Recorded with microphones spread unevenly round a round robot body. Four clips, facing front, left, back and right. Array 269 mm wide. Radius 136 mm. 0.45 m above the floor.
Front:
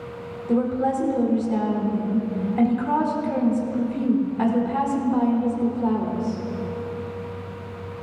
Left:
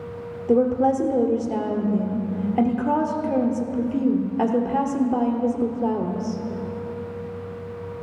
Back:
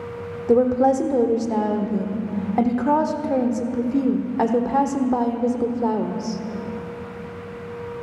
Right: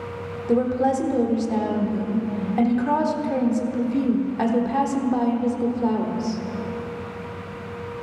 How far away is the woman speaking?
About 1.4 m.